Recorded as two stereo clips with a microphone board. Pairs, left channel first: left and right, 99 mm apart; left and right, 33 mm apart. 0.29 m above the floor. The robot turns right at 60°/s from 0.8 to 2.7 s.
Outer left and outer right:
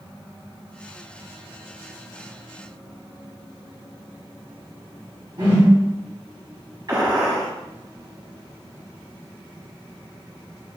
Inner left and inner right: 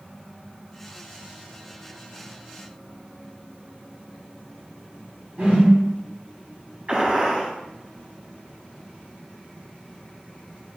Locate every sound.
5.4 s a whoosh: 55° right (ahead or behind), 1.3 m
6.9 s a gunshot: 45° right (ahead or behind), 1.6 m